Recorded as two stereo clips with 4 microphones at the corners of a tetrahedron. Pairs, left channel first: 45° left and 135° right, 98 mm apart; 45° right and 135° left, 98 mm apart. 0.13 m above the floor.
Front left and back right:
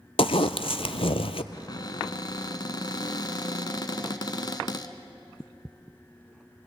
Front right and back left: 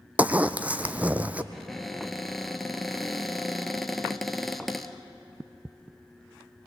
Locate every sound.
0.2 s a zipper: 60° left, 0.7 m
1.5 s a cupboard door: 45° left, 1.0 m